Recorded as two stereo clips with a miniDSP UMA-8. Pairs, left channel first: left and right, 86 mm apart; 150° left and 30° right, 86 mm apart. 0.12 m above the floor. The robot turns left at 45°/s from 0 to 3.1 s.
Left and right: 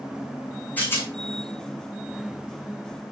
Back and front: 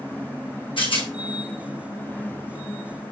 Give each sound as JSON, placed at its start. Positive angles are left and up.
{"t": 0.8, "sound": "a rattle", "azimuth_deg": 160, "distance_m": 2.0}